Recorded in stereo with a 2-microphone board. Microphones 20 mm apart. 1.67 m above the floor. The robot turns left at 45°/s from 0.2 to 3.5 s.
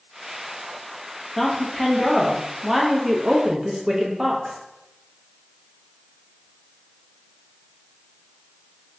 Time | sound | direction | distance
1.4 | a woman speaking | 40° left | 0.5 m